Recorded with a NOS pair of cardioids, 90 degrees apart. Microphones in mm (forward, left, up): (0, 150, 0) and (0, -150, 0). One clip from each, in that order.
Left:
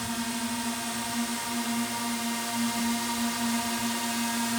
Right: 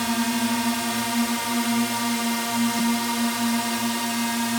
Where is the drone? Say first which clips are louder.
Right 8 dB; 60° right; by 4.6 s 30° right.